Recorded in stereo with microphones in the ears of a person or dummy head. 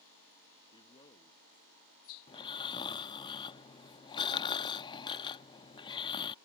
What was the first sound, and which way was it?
A man speaking, 25° left (ahead or behind).